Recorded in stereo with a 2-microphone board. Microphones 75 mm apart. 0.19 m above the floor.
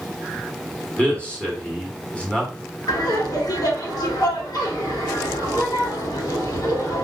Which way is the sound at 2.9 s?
60° left (ahead or behind).